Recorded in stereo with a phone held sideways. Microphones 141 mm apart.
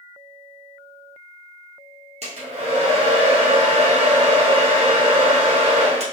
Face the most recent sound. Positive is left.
turn(degrees=-55)  # may be behind; listen again after turning